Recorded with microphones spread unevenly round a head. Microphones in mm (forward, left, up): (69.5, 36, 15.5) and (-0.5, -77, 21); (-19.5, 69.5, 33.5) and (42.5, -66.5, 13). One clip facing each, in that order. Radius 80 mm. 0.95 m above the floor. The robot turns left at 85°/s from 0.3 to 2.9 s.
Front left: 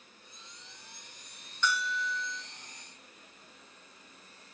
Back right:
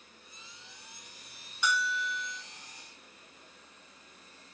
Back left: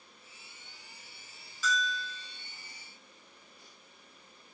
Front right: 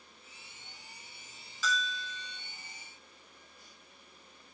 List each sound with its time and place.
1.6 s a bell: 45° right, 0.7 m; by 2.4 s 110° right, 0.7 m